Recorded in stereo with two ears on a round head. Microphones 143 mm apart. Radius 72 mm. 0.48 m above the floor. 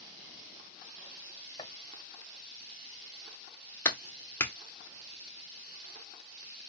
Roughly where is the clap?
Centre.